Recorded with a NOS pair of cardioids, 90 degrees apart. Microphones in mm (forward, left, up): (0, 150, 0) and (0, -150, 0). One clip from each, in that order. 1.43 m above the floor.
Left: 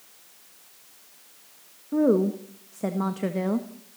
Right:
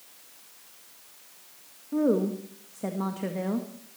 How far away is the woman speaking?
About 1.7 m.